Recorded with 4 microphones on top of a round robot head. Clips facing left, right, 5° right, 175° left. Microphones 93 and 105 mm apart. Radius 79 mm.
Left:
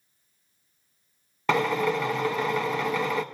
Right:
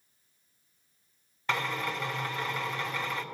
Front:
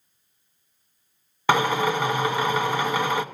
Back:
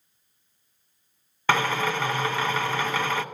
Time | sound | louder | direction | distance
1.5 | a drill | left 9 dB, front 3 dB | 70° left | 0.6 m